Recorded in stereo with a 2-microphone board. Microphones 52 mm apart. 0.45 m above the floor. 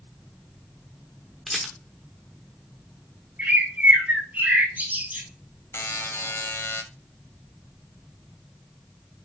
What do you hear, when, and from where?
1.5 s a rattle: centre (ahead or behind), 0.9 m
3.4 s a bird: 30° right (ahead or behind), 1.9 m
5.7 s a buzzer: 60° left (ahead or behind), 0.5 m